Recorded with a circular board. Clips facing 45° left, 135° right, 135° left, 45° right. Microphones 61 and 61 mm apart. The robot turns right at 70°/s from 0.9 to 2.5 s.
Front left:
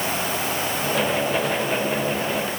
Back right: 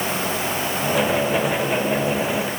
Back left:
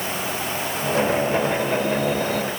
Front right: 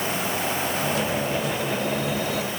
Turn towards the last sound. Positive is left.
No sound to turn to.